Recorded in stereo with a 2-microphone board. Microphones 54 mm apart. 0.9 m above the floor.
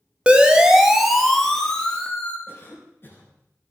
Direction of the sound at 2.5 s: 40° left (ahead or behind).